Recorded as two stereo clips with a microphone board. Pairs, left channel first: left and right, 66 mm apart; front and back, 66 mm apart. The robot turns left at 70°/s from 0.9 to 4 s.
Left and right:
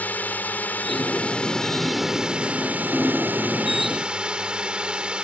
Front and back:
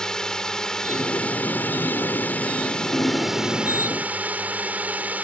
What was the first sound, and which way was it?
A drone, 70° left.